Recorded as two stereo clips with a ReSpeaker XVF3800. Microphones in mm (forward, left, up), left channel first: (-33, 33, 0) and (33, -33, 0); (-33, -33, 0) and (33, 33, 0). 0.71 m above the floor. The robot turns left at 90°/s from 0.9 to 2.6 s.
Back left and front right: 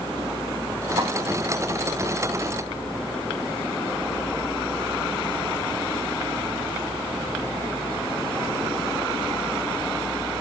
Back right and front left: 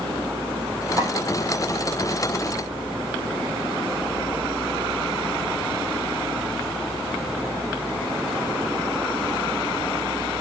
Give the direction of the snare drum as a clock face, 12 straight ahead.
12 o'clock.